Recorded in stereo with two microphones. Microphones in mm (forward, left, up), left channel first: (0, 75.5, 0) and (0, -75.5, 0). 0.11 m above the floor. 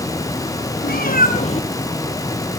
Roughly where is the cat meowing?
Left.